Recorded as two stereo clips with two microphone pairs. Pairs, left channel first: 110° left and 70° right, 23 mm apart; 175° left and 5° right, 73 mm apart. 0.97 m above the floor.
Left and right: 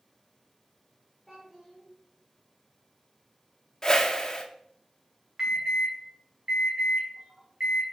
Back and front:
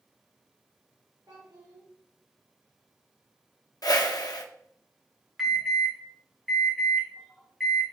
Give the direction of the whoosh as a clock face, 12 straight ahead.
6 o'clock.